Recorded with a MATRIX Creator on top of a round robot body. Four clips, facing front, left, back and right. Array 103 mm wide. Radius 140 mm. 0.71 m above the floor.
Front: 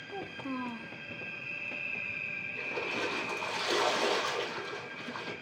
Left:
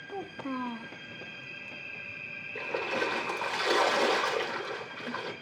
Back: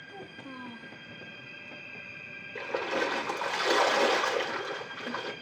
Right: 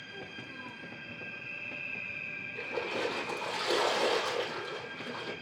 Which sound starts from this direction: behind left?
A splash, at 2.5 s.